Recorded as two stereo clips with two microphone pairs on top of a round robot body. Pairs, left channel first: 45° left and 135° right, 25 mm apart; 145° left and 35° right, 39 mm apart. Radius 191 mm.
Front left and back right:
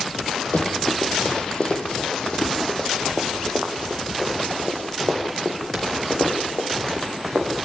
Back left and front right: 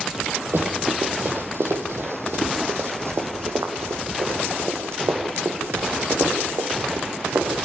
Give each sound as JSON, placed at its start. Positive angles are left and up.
{"t": 0.5, "sound": "running footsteps", "azimuth_deg": 5, "distance_m": 2.5}